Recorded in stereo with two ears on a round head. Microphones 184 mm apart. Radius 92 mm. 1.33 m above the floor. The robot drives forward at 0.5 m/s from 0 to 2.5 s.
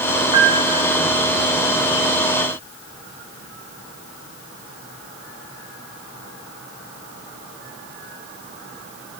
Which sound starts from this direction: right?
A piano, at 0.3 s.